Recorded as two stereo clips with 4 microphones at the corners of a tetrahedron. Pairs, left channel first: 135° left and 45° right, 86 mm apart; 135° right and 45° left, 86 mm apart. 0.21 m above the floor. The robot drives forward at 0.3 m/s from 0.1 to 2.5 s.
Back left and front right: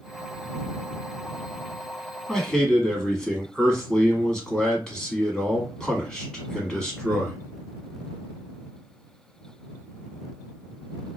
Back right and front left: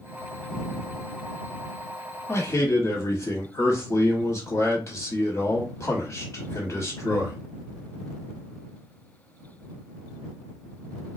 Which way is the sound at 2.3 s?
145° right.